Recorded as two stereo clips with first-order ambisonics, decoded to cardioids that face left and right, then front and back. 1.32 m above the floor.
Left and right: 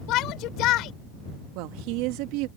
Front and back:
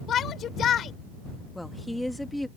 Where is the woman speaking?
85° right.